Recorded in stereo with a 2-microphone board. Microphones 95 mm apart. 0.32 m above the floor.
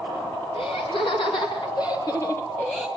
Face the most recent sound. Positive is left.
turn(degrees=0)  # may be behind; listen again after turning